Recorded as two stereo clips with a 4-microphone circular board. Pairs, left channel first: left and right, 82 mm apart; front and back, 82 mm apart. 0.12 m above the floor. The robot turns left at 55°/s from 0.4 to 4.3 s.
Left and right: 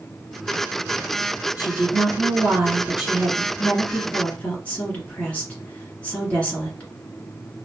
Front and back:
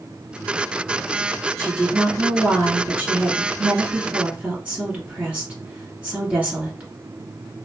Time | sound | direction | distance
1.6 | a woman speaking | 75° right | 1.7 m